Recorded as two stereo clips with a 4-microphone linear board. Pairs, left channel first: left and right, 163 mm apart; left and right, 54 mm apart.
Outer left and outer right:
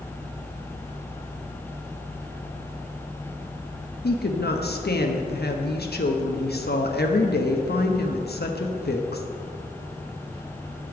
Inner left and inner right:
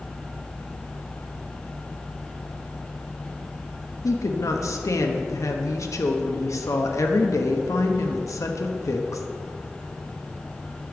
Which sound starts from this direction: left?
A woman speaking, at 4.0 s.